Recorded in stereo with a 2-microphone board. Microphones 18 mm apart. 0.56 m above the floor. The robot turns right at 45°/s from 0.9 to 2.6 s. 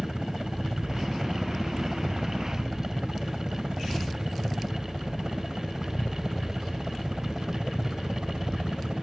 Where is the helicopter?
45° right (ahead or behind); by 9.0 s 50° right (ahead or behind).